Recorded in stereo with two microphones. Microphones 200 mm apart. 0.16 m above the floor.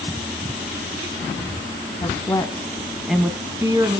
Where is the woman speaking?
25° left (ahead or behind), 1.3 m; by 4.0 s 20° right (ahead or behind), 1.5 m.